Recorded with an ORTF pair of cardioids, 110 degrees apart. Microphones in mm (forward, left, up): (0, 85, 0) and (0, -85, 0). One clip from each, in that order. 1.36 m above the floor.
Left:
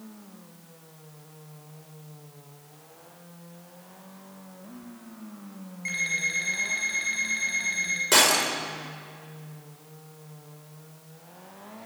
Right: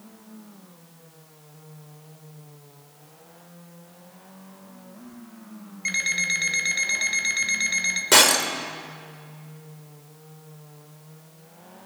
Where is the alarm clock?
45° right, 3.5 m.